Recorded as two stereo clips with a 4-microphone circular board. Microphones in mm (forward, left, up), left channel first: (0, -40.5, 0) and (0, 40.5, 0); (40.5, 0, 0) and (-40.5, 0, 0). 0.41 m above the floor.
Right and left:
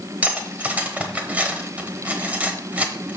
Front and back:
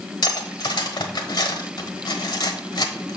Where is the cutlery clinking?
20° left, 1.0 m.